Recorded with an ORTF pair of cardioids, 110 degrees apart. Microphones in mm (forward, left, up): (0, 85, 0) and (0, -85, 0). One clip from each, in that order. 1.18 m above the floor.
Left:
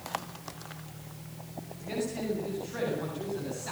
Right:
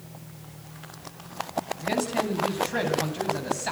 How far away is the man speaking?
About 9 m.